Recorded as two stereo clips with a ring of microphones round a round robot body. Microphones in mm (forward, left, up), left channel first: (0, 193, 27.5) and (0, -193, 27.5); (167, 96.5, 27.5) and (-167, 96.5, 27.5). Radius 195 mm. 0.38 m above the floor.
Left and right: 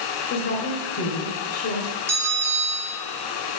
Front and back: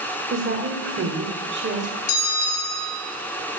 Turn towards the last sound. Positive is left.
turn(degrees=-5)